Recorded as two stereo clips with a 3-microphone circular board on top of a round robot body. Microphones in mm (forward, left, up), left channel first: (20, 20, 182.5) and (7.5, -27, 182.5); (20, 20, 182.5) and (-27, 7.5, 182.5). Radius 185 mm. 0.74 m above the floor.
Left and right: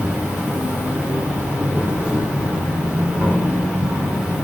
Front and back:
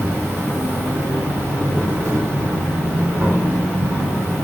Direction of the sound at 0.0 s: 150° right.